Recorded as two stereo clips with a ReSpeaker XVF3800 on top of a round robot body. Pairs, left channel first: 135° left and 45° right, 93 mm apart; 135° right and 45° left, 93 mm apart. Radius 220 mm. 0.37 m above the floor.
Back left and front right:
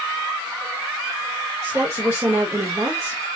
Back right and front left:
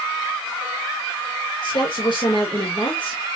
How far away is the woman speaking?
About 2.0 m.